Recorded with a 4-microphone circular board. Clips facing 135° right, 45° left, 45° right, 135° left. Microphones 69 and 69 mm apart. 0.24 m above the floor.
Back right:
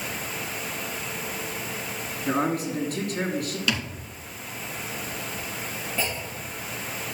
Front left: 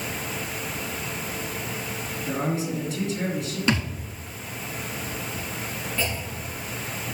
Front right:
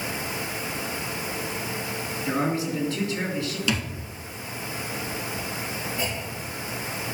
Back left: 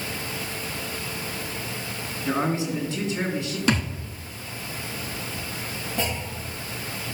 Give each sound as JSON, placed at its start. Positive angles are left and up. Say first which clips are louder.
{"t": 2.2, "sound": "a man speaking", "louder": "back right 2 dB, back left 1 dB", "azimuth_deg": -160, "distance_m": 3.0}
{"t": 3.7, "sound": "a thud", "louder": "front left 6 dB, back left 6 dB", "azimuth_deg": 100, "distance_m": 1.2}
{"t": 6.0, "sound": "a clunk", "louder": "even, back left 1 dB", "azimuth_deg": 155, "distance_m": 6.0}